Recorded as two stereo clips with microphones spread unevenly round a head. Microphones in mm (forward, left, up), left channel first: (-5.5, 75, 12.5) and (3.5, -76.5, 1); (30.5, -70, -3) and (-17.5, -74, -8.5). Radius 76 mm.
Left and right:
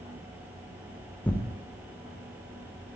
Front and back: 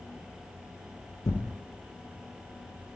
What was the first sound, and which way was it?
Tearing paper, 15° left.